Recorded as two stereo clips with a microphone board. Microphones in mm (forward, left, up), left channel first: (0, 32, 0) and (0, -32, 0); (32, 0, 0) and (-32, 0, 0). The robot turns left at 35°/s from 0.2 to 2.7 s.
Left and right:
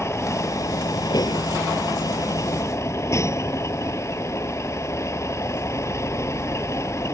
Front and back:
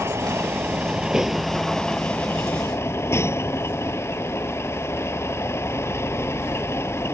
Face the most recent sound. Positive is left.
turn(degrees=50)